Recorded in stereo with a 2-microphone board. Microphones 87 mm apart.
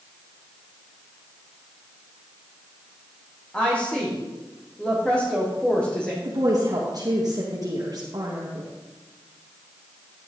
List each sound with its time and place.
3.5 s a woman speaking: 15° left (ahead or behind), 4.5 m
6.2 s a woman speaking: 45° right (ahead or behind), 2.5 m